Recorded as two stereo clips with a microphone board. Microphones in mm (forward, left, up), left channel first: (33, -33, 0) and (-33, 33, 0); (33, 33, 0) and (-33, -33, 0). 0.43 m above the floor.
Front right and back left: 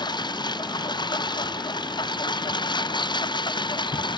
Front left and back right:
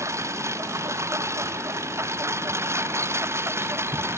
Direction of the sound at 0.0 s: 80° right.